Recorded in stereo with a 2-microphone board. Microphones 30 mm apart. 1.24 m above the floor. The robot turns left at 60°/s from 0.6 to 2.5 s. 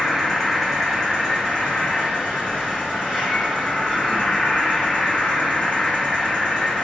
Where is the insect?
165° right, 1.8 m; by 6.8 s 80° left, 1.8 m.